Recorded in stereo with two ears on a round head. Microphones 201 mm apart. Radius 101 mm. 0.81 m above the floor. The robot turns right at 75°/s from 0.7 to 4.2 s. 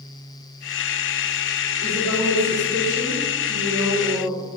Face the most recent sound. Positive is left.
turn(degrees=-40)